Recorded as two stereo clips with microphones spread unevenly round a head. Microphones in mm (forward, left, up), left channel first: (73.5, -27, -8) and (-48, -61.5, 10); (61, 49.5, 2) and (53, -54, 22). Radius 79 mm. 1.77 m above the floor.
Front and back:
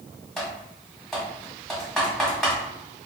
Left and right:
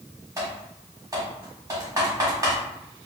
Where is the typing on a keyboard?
85° right, 1.6 m.